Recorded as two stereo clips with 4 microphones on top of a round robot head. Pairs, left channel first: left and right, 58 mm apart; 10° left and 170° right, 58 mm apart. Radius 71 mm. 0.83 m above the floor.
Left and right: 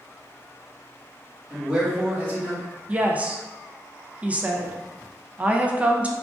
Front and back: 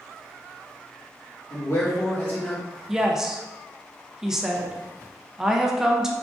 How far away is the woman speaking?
About 0.6 m.